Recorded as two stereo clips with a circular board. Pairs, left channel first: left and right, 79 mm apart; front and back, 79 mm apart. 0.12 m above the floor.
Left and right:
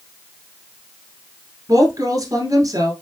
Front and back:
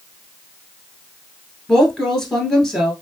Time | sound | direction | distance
1.7 | a woman speaking | 85° right | 1.6 m